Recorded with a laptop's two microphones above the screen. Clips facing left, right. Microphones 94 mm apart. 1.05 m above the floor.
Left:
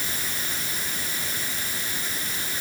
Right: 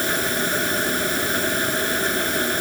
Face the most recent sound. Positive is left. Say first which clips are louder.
# right 11 dB
turn(degrees=-65)  # may be behind; listen again after turning